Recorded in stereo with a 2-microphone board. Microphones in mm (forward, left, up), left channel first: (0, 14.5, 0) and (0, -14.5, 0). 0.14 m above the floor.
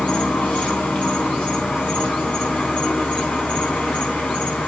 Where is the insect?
50° left (ahead or behind), 4 m.